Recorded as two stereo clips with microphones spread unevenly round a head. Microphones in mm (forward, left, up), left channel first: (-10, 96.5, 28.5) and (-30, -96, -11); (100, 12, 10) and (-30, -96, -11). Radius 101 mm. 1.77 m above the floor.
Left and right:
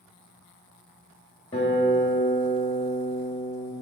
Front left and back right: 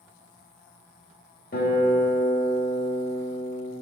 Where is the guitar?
35° left, 1.7 m.